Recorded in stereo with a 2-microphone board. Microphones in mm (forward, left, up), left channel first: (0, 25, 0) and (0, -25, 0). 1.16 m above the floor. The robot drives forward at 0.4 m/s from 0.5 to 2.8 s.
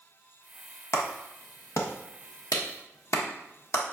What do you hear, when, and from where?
0.9 s a clap: 65° left (ahead or behind), 1.1 m; by 3.8 s 75° left (ahead or behind), 1.0 m